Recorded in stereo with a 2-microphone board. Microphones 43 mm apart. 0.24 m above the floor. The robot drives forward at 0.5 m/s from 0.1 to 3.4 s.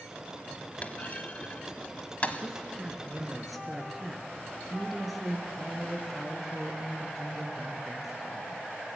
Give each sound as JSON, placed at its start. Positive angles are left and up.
{"t": 0.8, "sound": "a clunk", "side_deg": 40, "distance_m": 1.1}
{"t": 2.4, "sound": "a woman speaking", "side_deg": 0, "distance_m": 2.5}